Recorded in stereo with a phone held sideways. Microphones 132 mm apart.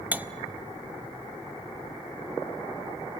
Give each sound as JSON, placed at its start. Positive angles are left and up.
{"t": 0.1, "sound": "cutlery clinking", "side_deg": -10, "distance_m": 0.6}